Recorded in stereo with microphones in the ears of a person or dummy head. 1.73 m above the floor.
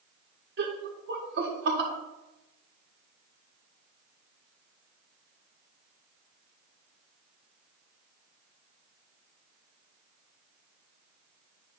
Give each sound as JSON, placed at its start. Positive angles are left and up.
{"t": 0.6, "sound": "laughter", "side_deg": -65, "distance_m": 1.6}